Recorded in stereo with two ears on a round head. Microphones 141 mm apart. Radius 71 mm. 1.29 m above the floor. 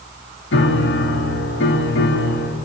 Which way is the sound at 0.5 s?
85° left.